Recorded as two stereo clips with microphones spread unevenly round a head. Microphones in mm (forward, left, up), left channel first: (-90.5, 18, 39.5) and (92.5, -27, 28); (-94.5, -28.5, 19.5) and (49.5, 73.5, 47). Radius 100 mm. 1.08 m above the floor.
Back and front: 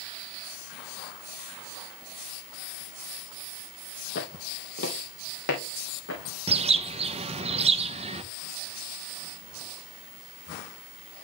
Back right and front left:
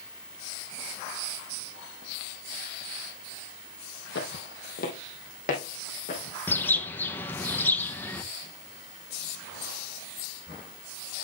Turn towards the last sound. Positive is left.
turn(degrees=-70)